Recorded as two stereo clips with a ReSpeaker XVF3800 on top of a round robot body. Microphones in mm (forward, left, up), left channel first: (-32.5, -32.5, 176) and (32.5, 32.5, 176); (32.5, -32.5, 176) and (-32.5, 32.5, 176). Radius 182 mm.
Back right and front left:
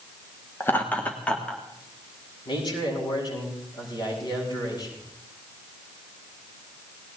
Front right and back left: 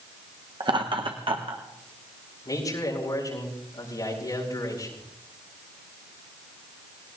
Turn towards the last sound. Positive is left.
turn(degrees=-95)